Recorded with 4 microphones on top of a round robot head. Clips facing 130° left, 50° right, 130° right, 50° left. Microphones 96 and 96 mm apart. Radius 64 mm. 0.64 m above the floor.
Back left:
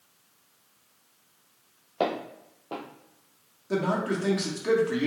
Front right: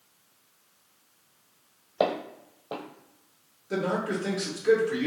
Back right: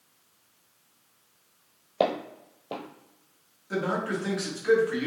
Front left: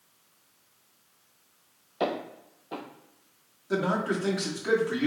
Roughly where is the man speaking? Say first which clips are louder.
Back left 1 dB, front left 2 dB; behind left.